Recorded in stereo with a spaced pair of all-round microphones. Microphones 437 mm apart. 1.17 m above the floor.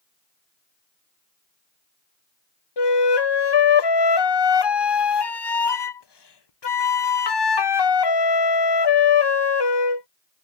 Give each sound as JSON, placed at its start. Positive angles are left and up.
{"t": 2.8, "sound": "a flute", "side_deg": 70}